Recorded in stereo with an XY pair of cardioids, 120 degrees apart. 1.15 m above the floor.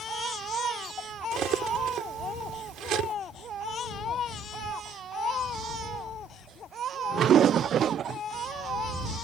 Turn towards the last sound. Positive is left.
turn(degrees=-65)